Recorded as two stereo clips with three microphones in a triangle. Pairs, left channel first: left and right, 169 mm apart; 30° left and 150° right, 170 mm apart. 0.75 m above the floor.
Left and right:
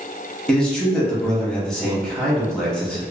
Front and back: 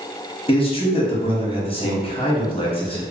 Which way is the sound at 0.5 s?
10° left.